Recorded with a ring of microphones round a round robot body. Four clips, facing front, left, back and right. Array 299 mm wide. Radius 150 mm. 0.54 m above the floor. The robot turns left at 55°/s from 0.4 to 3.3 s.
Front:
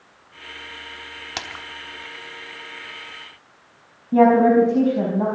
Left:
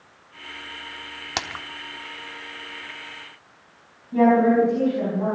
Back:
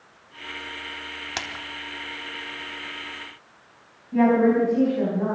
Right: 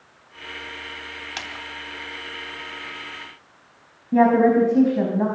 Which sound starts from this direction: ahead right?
A woman speaking, at 4.1 s.